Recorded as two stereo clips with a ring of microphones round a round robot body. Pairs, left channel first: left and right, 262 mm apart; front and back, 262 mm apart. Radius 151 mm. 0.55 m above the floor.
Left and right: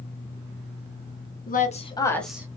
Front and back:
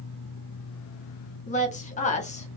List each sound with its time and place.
1.5 s a woman speaking: 50° left, 1.0 m; by 2.5 s 20° right, 0.8 m